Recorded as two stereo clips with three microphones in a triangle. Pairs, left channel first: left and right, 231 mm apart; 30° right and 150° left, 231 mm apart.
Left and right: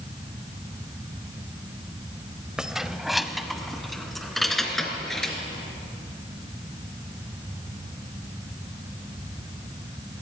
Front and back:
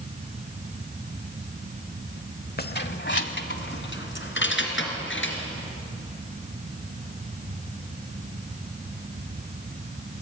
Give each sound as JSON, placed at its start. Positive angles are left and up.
{"t": 2.6, "sound": "keys jangling", "azimuth_deg": -5, "distance_m": 0.7}